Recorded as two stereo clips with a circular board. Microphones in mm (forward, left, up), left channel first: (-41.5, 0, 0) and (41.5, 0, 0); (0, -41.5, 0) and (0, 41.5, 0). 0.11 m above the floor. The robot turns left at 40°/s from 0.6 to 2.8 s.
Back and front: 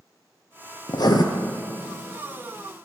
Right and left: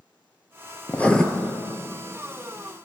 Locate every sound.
0.9 s writing: 155° right, 0.9 m; by 1.2 s 170° right, 0.9 m